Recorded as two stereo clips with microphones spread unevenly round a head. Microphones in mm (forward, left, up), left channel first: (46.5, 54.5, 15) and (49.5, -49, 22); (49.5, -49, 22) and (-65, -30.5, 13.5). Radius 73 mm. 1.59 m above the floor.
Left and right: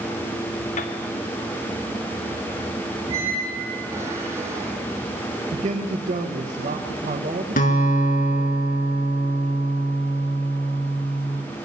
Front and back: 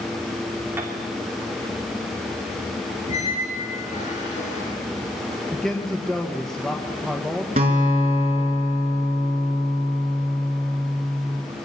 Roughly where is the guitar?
Behind left.